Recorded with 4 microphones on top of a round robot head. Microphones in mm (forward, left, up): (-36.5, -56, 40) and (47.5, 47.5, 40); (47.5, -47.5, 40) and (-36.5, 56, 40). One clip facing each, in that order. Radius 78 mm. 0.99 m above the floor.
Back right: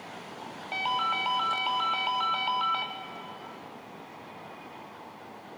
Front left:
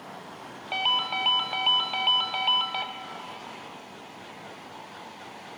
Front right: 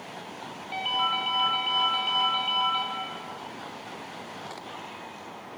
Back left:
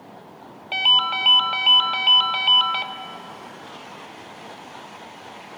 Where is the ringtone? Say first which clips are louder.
Front left 1 dB, back left 3 dB; 120° left, 1.1 m.